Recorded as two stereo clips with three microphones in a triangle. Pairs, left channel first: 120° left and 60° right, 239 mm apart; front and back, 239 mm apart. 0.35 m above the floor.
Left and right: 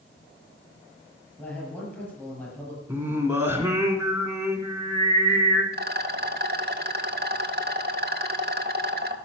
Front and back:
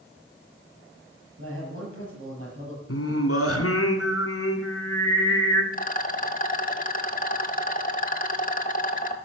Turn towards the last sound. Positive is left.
turn(degrees=-35)